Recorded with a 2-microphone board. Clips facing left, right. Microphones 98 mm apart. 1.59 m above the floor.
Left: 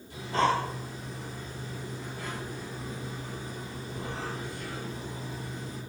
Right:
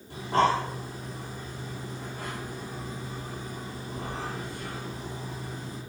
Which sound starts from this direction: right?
Breathing, at 0.1 s.